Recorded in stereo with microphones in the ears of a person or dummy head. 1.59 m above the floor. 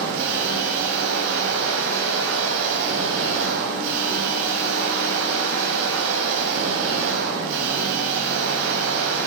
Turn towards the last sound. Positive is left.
turn(degrees=-80)